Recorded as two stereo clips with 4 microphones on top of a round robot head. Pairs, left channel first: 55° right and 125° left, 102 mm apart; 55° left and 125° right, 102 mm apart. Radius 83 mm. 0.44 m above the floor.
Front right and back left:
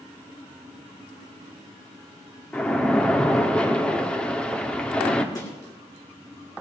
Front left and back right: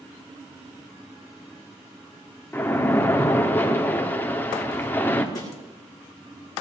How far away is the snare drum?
About 4.5 m.